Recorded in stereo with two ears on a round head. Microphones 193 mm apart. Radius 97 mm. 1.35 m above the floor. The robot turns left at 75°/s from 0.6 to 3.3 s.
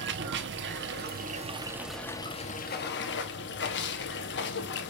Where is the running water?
80° right, 1.1 m; by 4.9 s 75° left, 1.1 m.